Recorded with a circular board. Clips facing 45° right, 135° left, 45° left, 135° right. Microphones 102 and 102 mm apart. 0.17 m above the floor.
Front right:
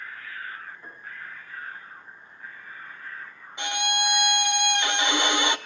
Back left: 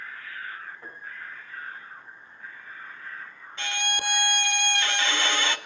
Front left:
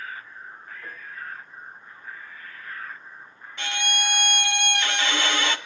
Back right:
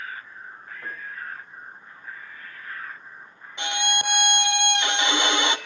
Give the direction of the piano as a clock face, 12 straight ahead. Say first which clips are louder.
Back left 1 dB, back right 3 dB; 7 o'clock.